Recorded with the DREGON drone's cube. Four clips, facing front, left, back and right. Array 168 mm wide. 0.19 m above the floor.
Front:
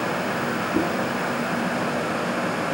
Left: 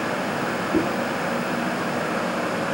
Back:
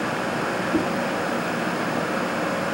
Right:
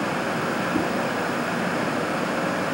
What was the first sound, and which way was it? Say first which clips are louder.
A whoosh: left 4 dB, even; 105° left.